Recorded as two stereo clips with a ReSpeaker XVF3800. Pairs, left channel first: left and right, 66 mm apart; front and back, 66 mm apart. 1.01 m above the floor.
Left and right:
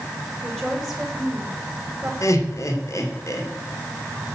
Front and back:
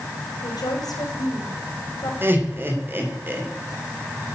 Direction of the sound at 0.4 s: 5° left.